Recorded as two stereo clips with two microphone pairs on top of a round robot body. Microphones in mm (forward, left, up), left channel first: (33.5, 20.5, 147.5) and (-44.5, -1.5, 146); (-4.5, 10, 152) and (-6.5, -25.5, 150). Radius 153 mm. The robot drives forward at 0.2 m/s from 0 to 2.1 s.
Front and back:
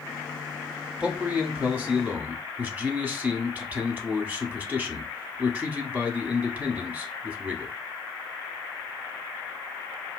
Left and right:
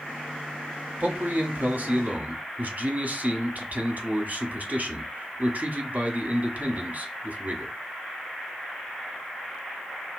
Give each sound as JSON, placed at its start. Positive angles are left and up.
{"t": 1.0, "sound": "a man speaking", "azimuth_deg": -90, "distance_m": 1.4}